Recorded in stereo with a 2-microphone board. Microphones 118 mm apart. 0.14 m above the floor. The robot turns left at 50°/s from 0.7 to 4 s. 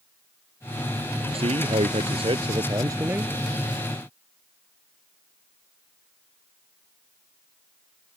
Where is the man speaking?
60° right; by 3.3 s 165° right.